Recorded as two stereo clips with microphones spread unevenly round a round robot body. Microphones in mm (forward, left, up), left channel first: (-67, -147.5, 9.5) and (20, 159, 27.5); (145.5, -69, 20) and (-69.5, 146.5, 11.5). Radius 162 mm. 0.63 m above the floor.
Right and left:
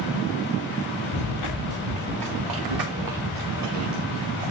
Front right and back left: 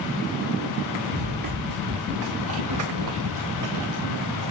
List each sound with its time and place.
1.1 s running footsteps: 75° left, 5 m; by 4.5 s 120° left, 5.5 m